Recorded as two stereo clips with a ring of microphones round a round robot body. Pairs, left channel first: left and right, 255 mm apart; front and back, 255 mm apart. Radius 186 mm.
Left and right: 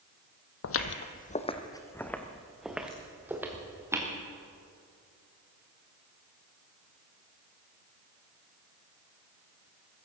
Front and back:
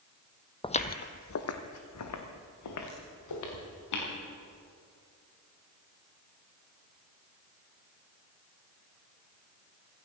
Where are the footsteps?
70° left, 1.1 m; by 4.1 s 10° right, 4 m.